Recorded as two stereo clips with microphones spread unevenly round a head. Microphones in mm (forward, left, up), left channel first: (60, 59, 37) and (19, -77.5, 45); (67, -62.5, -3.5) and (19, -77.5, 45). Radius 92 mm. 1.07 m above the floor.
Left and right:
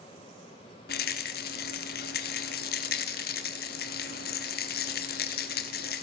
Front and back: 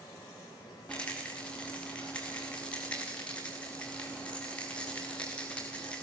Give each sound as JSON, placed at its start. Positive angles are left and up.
{"t": 0.9, "sound": "a rattle", "azimuth_deg": 105, "distance_m": 1.5}